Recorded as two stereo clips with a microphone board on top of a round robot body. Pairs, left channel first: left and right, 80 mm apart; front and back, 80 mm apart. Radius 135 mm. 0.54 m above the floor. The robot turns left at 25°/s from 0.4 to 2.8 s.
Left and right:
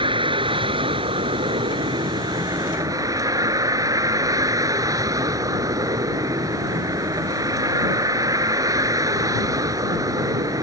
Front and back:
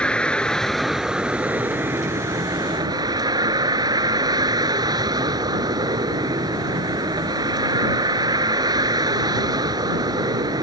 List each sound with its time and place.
0.0 s a vehicle: 80° right; by 10.6 s 140° right